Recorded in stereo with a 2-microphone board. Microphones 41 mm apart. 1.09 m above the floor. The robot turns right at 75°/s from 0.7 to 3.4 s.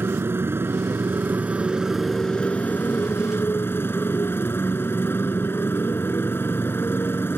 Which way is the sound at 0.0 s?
100° right.